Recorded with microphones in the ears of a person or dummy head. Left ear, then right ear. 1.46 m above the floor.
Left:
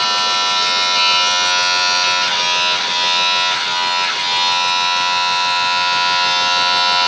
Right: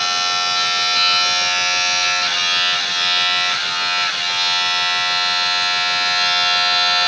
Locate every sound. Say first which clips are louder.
0.0 s a machine running: left 3 dB; 25° right (ahead or behind), 5 m